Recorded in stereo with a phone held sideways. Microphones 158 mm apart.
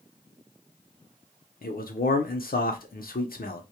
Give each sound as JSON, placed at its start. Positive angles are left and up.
{"t": 1.6, "sound": "a man speaking", "side_deg": 75, "distance_m": 0.6}